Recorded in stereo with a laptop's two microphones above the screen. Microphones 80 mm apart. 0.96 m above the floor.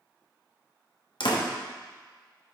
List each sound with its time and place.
1.2 s a door slam: 75° left (ahead or behind), 1.2 m